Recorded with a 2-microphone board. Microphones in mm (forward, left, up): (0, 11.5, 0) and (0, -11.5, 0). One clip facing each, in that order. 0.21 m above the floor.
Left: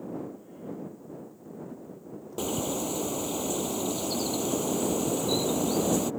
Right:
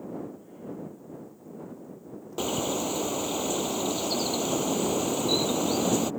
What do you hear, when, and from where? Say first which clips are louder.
2.4 s a bird: right 2 dB; 20° right (ahead or behind)